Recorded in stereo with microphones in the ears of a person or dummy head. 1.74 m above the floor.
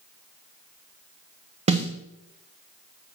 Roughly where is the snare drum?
Right.